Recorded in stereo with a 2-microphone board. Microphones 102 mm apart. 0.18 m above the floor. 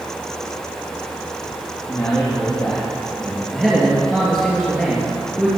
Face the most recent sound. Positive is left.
turn(degrees=5)  # may be behind; listen again after turning